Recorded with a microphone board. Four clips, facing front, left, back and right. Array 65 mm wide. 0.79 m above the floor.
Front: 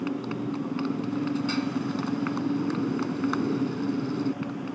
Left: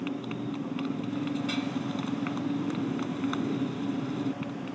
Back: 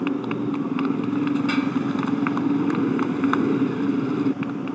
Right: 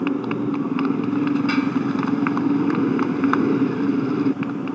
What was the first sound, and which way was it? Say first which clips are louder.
A motorcycle: right 11 dB, back 6 dB; 115° right.